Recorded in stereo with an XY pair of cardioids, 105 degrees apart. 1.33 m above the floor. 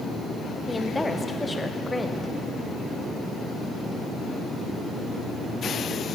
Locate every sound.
0.7 s a woman speaking: 15° left, 0.8 m